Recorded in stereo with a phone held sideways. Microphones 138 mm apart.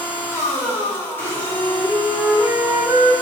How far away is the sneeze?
No sneeze in this recording.